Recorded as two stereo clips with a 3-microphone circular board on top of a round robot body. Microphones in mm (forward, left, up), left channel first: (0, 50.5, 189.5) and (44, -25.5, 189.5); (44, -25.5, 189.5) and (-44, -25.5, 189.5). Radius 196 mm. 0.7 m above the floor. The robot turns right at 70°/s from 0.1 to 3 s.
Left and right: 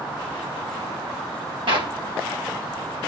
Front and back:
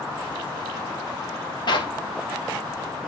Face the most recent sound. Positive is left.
turn(degrees=55)